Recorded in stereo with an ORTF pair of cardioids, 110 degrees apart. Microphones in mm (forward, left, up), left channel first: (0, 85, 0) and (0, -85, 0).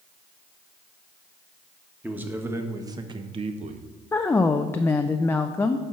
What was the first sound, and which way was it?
A man speaking, 10° right.